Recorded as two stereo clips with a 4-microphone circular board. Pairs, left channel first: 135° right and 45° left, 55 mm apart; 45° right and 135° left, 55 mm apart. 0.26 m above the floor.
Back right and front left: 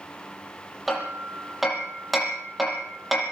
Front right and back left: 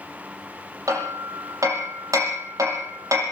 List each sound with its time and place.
0.9 s hammering: 130° left, 7.5 m